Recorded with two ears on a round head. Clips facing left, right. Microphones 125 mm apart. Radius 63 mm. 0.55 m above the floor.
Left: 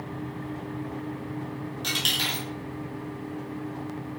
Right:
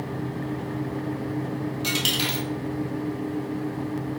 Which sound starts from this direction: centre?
A dropped coin, at 1.8 s.